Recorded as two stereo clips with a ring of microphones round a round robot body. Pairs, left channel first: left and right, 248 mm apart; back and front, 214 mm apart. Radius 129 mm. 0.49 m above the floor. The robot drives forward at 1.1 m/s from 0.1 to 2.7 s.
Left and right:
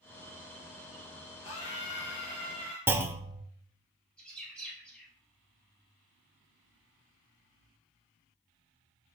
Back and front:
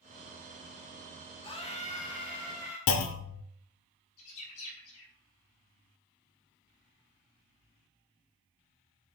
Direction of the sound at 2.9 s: 170° right.